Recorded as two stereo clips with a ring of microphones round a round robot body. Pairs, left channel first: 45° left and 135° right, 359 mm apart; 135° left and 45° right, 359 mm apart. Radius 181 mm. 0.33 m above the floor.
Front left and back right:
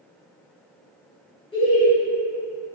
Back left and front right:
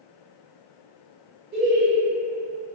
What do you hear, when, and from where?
1.5 s laughter: 15° right, 1.3 m